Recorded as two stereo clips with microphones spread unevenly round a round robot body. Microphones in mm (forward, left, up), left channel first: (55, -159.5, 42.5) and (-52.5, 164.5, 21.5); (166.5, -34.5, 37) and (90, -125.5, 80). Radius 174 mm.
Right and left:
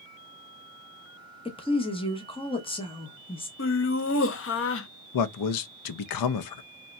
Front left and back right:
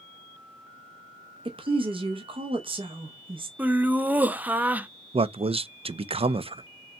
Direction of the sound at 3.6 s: 30° right.